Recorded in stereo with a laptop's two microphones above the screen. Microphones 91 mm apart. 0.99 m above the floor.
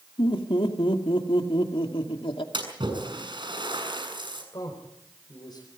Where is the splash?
60° right (ahead or behind), 7.5 m.